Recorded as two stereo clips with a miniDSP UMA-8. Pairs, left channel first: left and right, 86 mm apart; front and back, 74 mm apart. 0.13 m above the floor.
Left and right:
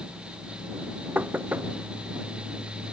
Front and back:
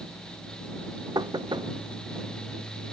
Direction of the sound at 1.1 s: 160° right.